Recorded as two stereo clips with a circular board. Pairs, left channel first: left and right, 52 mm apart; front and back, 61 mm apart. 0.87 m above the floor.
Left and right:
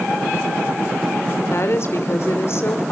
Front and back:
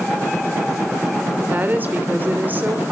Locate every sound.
1.5 s a woman speaking: 120° left, 2.5 m